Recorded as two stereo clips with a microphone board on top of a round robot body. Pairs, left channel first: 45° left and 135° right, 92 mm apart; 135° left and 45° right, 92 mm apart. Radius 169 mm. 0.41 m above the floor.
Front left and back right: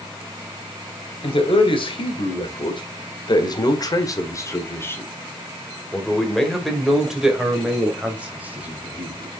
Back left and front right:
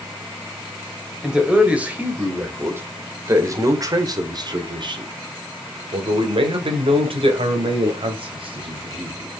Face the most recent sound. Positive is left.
turn(degrees=-65)